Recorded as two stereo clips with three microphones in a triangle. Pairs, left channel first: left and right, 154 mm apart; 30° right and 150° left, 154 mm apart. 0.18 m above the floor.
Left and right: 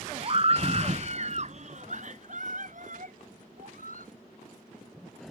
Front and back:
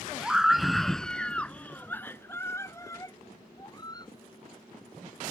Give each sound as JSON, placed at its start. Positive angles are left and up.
{"t": 0.2, "sound": "a scream", "azimuth_deg": -125}